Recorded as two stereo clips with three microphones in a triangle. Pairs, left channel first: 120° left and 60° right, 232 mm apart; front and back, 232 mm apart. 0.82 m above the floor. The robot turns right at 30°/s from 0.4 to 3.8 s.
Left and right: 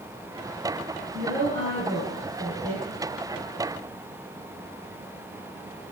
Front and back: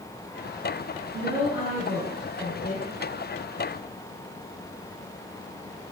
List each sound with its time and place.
1.1 s a woman speaking: 115° right, 10 m; by 2.8 s 60° right, 10 m